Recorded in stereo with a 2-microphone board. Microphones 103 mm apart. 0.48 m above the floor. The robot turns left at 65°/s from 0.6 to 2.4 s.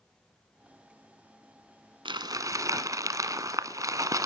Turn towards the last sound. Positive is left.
turn(degrees=-35)  # may be behind; listen again after turning